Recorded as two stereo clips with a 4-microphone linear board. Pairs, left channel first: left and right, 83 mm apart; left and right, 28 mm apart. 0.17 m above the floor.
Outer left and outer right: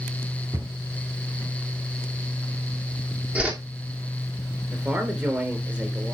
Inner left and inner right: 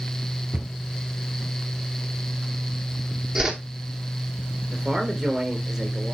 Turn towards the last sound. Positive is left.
turn(degrees=-20)  # may be behind; listen again after turning